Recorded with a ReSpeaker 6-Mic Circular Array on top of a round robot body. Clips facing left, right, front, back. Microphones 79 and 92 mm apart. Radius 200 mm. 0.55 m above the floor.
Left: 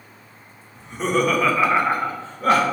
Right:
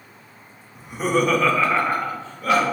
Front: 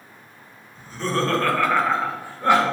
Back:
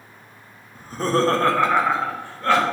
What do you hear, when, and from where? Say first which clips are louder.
0.8 s laughter: even, back 4 dB; 165° right, 1.7 m; by 2.6 s 65° left, 1.6 m